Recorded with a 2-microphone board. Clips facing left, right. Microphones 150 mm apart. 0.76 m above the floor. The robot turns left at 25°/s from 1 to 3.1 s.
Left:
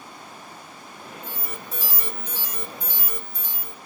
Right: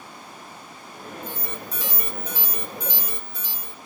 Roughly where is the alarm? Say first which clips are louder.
Right 2 dB; ahead.